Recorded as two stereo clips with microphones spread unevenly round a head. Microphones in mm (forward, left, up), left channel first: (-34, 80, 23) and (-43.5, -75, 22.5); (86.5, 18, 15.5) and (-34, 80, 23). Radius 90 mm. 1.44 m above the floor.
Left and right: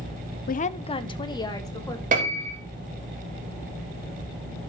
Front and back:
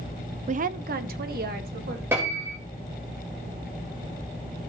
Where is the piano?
130° right, 3 m.